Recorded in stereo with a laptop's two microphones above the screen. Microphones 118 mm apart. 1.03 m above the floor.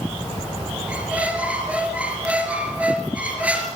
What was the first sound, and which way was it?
A squeak, 10° right (ahead or behind).